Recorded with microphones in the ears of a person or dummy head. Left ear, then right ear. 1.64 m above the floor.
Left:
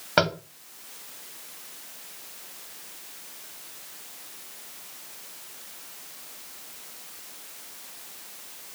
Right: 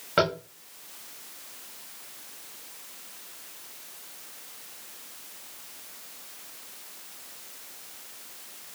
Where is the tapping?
10° left (ahead or behind), 0.7 m.